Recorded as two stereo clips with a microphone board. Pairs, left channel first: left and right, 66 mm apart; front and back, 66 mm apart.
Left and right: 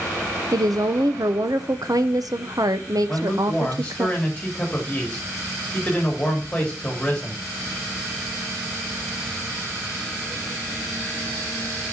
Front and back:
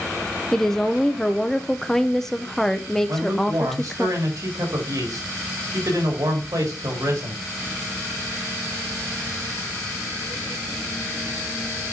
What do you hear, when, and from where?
0.5 s a woman speaking: 85° right, 0.9 m
3.1 s a man speaking: 165° left, 3.5 m